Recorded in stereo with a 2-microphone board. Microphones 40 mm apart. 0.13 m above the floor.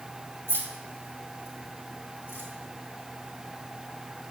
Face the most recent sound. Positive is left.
turn(degrees=75)  # may be behind; listen again after turning